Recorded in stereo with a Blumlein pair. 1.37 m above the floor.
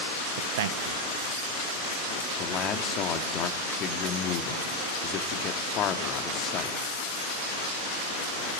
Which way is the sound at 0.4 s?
55° right.